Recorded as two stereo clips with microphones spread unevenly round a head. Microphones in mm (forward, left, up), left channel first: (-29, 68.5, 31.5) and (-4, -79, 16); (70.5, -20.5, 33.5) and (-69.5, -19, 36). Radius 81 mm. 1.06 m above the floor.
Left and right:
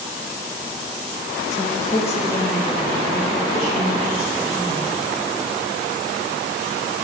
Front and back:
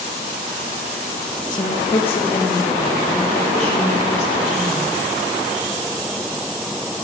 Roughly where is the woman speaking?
Ahead left.